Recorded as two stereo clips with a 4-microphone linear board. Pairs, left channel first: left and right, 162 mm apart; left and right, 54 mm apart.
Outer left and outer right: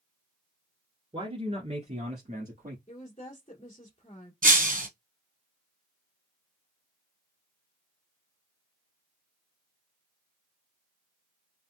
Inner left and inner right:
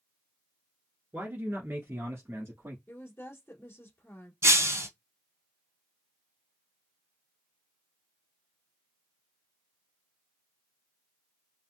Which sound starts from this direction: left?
A woman speaking, at 2.9 s.